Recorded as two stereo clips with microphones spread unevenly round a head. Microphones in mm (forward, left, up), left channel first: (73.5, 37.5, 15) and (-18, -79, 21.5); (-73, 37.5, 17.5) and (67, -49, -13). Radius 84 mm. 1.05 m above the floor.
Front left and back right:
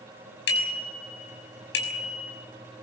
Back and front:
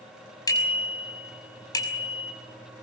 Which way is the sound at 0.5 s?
80° left.